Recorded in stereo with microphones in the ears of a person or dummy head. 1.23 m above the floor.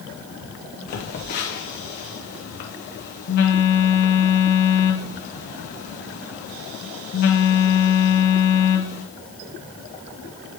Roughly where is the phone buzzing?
Left.